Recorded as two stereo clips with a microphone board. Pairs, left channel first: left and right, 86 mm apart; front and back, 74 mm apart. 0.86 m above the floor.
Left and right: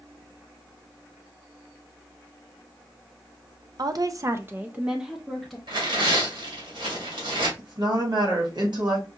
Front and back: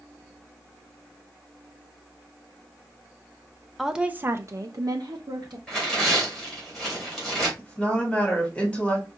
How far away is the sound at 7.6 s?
About 1.8 m.